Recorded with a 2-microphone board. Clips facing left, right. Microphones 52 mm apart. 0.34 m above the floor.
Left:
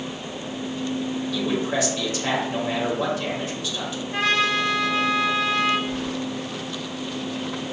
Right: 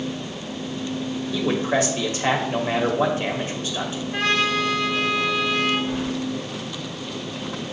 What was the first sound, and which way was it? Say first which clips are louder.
A man speaking: right 4 dB; 35° right (ahead or behind).